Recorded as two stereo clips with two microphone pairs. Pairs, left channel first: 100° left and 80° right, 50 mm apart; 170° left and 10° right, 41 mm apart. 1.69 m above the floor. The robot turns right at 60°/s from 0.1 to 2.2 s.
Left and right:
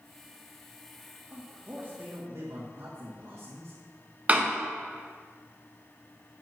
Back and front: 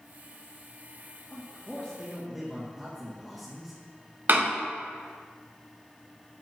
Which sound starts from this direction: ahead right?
A door slam, at 4.3 s.